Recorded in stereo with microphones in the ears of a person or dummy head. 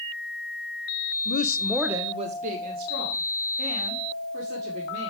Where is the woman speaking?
55° left (ahead or behind), 0.8 m; by 5.1 s 65° right (ahead or behind), 4.5 m.